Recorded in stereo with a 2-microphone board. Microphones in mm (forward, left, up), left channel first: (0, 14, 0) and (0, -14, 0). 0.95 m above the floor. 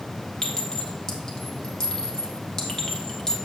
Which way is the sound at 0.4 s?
20° left (ahead or behind).